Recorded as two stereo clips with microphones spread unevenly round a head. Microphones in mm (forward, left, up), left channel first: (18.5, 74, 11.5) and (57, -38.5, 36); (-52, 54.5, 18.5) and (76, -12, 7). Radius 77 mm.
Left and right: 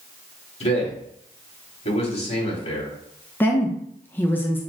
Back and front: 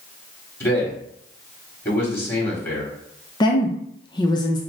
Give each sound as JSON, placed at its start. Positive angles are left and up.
{"t": 0.6, "sound": "a man speaking", "azimuth_deg": 80, "distance_m": 2.5}
{"t": 3.4, "sound": "a woman speaking", "azimuth_deg": 125, "distance_m": 0.7}